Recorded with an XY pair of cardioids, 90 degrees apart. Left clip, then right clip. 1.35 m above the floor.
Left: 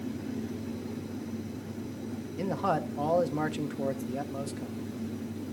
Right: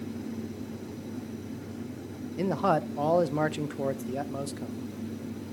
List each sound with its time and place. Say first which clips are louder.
2.4 s a man speaking: right 3 dB; 35° right, 0.6 m